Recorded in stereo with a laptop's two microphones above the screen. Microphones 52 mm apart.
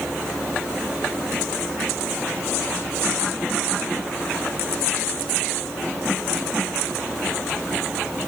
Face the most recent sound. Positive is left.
No sound to turn to.